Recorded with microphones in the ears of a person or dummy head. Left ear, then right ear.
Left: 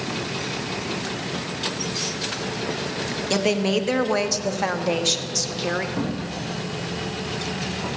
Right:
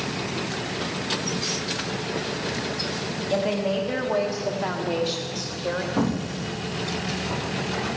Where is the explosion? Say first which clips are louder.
Right 1 dB; 80° right, 1.1 m.